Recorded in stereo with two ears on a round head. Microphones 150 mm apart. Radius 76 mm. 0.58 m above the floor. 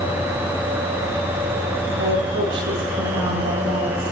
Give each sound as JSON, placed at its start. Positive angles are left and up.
{"t": 2.0, "sound": "a woman speaking", "side_deg": -80, "distance_m": 10.0}